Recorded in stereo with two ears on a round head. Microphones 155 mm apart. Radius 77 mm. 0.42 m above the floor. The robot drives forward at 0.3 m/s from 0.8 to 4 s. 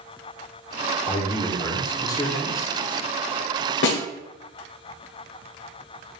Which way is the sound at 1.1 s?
20° left (ahead or behind).